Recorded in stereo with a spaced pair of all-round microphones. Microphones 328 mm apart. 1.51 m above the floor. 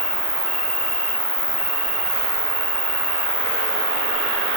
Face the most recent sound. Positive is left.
turn(degrees=-15)  # may be behind; listen again after turning